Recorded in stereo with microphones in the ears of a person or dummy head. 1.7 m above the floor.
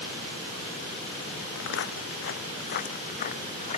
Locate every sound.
1.6 s footsteps: 70° left (ahead or behind); by 3.8 s 40° left (ahead or behind)